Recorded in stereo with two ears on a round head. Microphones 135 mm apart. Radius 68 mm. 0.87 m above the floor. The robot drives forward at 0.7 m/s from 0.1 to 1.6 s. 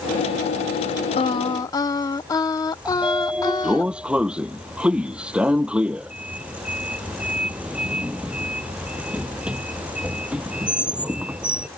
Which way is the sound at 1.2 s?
35° left (ahead or behind).